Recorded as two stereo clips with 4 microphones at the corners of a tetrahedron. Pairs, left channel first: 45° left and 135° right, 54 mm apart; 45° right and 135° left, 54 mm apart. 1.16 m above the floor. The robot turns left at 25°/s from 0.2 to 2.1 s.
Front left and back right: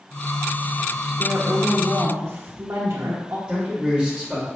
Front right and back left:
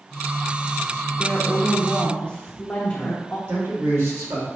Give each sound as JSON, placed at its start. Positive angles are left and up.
{"t": 1.2, "sound": "a woman speaking", "azimuth_deg": -90, "distance_m": 1.2}
{"t": 3.5, "sound": "a man speaking", "azimuth_deg": 155, "distance_m": 3.0}